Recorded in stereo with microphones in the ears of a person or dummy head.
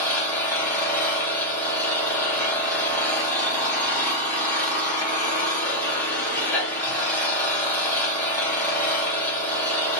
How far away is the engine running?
About 1.3 m.